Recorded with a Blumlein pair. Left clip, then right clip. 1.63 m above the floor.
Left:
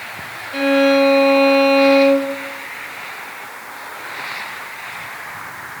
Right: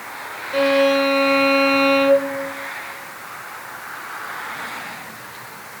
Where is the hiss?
No hiss in this recording.